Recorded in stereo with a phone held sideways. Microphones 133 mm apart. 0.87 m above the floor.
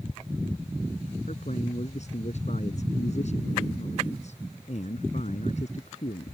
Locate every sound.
1.3 s a man speaking: 60° left (ahead or behind)